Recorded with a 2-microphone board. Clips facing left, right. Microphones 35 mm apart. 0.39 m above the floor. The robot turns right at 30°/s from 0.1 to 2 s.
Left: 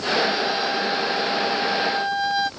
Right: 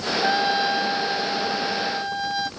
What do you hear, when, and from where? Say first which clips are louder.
0.2 s a trumpet: right 2 dB; 40° right; by 2.5 s 15° left